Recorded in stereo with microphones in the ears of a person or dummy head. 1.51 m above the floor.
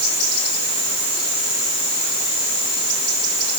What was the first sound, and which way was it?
Only background noise.